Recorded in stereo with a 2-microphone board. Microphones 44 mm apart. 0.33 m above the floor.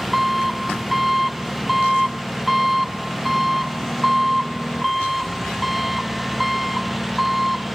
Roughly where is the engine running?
Centre.